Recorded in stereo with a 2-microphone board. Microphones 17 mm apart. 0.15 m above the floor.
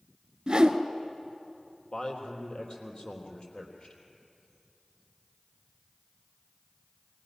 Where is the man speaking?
45° left (ahead or behind), 3.5 m.